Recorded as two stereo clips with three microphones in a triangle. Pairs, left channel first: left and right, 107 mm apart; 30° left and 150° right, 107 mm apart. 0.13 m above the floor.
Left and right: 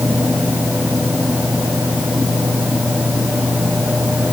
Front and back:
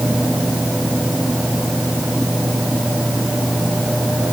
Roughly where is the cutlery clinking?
No cutlery clinking in this recording.